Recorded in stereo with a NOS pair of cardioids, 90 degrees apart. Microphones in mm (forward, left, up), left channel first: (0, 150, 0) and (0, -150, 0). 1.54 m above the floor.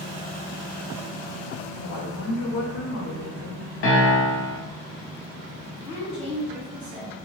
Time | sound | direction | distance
1.8 | a woman speaking | 65° left | 1.3 m
3.8 | a piano | 45° left | 0.9 m
5.8 | a woman speaking | 65° left | 1.5 m